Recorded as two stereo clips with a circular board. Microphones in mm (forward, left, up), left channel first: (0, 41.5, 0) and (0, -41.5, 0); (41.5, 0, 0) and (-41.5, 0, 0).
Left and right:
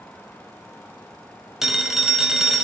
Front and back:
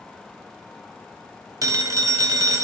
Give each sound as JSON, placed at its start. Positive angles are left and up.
{"t": 1.6, "sound": "a phone ringing", "azimuth_deg": -175, "distance_m": 0.6}